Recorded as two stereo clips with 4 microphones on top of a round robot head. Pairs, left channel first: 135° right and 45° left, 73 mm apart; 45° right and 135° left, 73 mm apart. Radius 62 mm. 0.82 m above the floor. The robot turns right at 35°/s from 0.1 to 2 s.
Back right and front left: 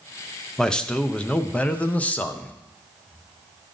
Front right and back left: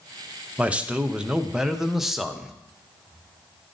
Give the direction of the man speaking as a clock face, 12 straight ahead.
7 o'clock.